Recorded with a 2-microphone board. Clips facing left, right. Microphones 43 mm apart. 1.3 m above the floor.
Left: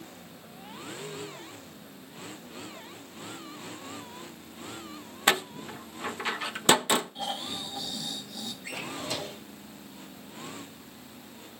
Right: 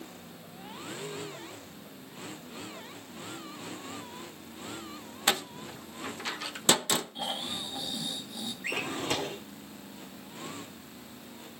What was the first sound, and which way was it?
A door slam, 20° left (ahead or behind).